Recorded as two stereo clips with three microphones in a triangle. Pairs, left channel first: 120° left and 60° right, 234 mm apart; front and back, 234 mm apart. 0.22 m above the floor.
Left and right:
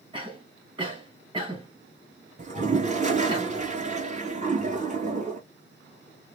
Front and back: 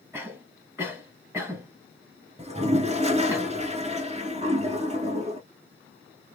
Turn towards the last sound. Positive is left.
turn(degrees=-115)